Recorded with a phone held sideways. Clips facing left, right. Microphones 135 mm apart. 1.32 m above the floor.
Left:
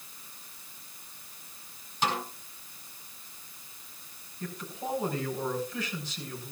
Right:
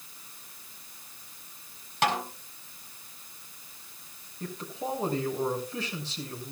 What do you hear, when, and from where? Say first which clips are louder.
2.0 s a snare drum: right 3 dB; 80° right, 4 m
4.4 s a man speaking: right 2 dB; 35° right (ahead or behind), 6.5 m